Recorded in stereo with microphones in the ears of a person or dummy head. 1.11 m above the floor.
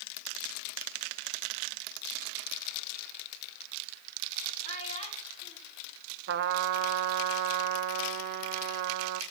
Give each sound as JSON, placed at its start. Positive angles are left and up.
{"t": 4.6, "sound": "a child speaking", "side_deg": 35, "distance_m": 5.0}
{"t": 6.3, "sound": "a trumpet", "side_deg": -60, "distance_m": 1.0}